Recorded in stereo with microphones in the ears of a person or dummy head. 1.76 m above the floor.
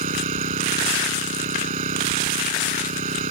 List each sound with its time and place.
0.0 s an engine running: 35° right (ahead or behind)